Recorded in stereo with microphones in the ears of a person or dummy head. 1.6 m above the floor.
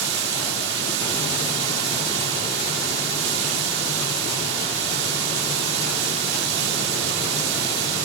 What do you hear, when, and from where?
0.0 s running water: 70° right (ahead or behind), 3.5 m